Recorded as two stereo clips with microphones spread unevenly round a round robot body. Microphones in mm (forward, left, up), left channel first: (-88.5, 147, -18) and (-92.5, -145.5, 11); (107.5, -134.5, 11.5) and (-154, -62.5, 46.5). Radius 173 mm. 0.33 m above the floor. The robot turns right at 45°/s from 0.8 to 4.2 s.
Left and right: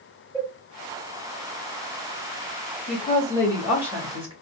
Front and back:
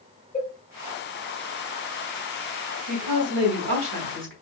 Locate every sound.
0.3 s a cowbell: 5° left, 1.5 m
2.9 s a woman speaking: 140° left, 1.8 m; by 4.3 s 160° right, 1.8 m